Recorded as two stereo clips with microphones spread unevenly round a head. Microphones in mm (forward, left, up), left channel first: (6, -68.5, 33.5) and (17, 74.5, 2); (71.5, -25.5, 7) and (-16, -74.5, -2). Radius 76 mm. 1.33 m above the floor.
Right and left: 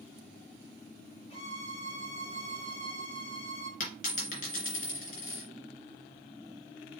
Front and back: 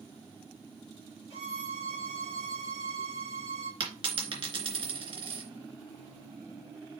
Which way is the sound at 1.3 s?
145° right.